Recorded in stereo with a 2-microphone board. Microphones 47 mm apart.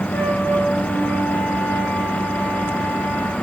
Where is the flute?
65° left (ahead or behind), 8 m.